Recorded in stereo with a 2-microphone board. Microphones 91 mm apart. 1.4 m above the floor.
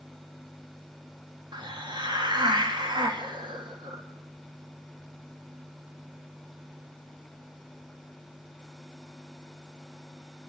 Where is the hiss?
55° right (ahead or behind), 2 m.